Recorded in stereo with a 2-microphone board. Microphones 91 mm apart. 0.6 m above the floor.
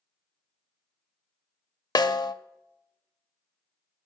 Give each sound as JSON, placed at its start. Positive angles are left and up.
{"t": 1.9, "sound": "a snare drum", "side_deg": 50, "distance_m": 0.5}